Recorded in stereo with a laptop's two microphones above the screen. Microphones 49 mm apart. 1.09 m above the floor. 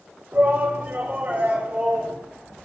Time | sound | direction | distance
0.3 | a shout | 45° right (ahead or behind) | 3.5 m